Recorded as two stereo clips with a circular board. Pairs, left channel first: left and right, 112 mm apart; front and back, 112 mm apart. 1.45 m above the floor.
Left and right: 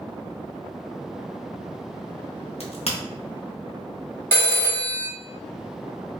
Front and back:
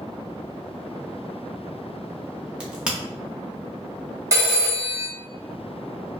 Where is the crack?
100° left, 0.6 m.